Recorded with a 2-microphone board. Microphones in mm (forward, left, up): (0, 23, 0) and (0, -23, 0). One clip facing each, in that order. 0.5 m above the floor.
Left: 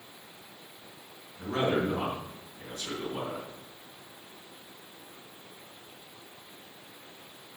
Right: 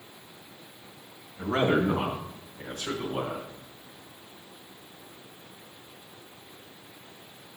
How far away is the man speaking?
About 4 m.